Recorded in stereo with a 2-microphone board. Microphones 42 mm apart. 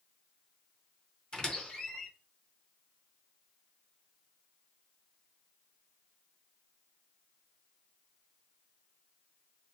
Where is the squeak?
20° left (ahead or behind), 0.9 m.